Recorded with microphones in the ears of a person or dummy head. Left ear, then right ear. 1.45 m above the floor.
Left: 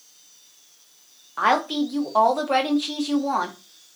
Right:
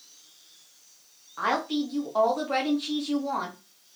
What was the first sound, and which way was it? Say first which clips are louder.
A woman speaking: left 6 dB; 20° left (ahead or behind).